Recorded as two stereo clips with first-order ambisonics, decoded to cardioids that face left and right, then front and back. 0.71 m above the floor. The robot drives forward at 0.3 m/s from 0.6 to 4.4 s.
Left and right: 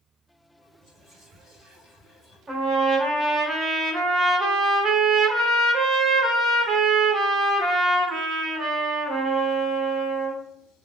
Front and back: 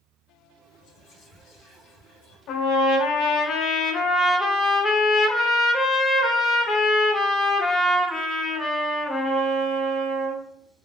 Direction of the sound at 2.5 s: 20° right.